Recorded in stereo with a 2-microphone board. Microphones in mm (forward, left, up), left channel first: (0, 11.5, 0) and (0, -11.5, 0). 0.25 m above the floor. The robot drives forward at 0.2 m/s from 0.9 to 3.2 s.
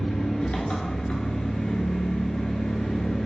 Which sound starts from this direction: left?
An engine running, at 0.0 s.